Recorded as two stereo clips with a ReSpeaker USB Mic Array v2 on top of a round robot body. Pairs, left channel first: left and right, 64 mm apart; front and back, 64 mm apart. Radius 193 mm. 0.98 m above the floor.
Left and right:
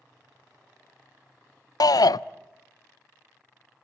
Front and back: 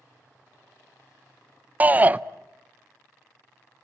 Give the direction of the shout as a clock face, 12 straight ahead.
8 o'clock.